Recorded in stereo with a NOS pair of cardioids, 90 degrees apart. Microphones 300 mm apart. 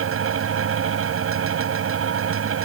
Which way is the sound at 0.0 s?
45° right.